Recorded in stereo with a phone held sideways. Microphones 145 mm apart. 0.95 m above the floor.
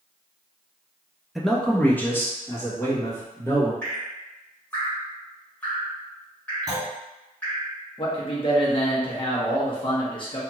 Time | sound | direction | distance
1.4 | a man speaking | centre (ahead or behind) | 0.5 m
3.8 | dripping | 10° left (ahead or behind) | 1.7 m
6.7 | a clunk | 30° right (ahead or behind) | 1.6 m
8.0 | a man speaking | 35° left (ahead or behind) | 0.9 m